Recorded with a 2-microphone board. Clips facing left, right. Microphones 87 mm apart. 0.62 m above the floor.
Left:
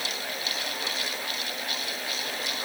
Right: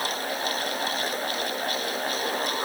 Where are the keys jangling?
I don't hear keys jangling.